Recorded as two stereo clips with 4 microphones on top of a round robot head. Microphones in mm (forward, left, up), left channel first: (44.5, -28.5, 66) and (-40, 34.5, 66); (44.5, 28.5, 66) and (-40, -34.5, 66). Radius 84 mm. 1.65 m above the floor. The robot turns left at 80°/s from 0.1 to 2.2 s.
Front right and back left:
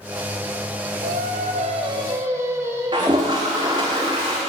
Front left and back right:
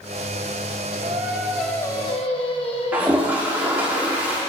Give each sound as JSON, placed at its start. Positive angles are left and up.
{"t": 1.0, "sound": "singing", "azimuth_deg": 170, "distance_m": 1.0}
{"t": 2.9, "sound": "a toilet flushing", "azimuth_deg": 150, "distance_m": 1.2}